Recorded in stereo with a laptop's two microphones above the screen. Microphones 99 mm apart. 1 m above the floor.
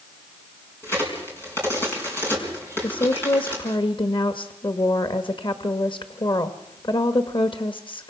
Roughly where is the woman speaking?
Left.